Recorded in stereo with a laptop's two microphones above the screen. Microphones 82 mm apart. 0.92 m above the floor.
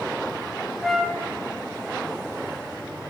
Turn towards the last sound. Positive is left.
turn(degrees=0)  # may be behind; listen again after turning